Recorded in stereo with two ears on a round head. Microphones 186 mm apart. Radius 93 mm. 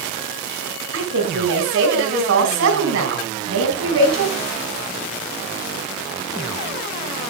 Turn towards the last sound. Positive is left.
turn(degrees=-70)  # may be behind; listen again after turning